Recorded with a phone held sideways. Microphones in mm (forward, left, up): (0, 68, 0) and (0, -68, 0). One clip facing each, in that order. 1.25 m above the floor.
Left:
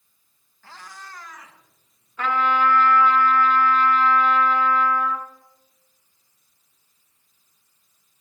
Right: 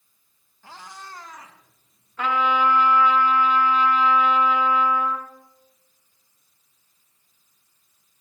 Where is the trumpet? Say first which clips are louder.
Even; 10° right (ahead or behind), 2.5 m.